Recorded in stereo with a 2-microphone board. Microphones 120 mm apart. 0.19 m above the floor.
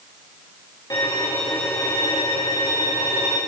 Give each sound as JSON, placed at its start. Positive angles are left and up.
{"t": 0.9, "sound": "a violin", "side_deg": 30, "distance_m": 3.5}